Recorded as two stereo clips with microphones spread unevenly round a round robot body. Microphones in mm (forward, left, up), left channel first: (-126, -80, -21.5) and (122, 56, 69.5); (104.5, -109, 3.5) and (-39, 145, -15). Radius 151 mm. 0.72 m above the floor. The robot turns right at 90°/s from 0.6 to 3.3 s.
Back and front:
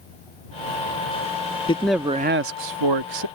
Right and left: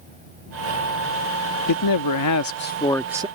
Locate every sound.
1.7 s a man speaking: 90° right; by 3.3 s 50° left